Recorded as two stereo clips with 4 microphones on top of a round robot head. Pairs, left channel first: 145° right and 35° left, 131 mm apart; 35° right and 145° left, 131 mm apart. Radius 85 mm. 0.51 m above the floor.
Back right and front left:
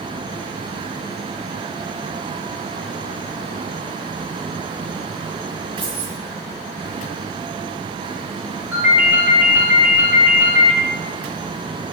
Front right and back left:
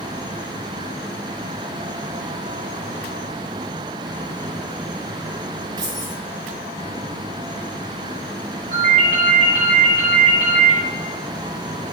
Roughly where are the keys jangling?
Left.